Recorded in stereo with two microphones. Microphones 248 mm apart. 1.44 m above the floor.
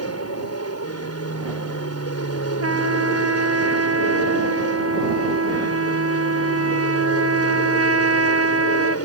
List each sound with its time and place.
0.0 s an aircraft: 75° left (ahead or behind); by 9.1 s 70° left (ahead or behind)
2.6 s a trumpet: 70° right (ahead or behind)